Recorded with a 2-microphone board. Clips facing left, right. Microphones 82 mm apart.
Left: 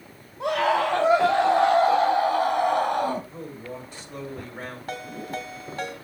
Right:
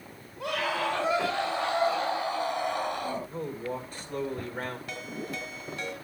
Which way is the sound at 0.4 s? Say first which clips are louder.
Left 8 dB; 25° left (ahead or behind).